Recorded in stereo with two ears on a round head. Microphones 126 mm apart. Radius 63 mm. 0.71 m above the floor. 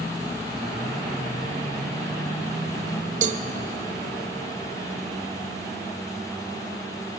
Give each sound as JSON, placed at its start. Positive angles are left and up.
{"t": 3.2, "sound": "a cowbell", "side_deg": -55, "distance_m": 0.5}